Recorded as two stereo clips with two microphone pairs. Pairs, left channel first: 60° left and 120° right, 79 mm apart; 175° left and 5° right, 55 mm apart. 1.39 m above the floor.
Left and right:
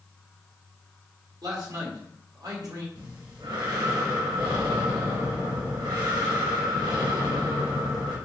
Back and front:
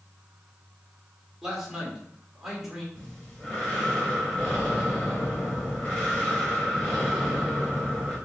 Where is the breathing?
110° right, 4 m.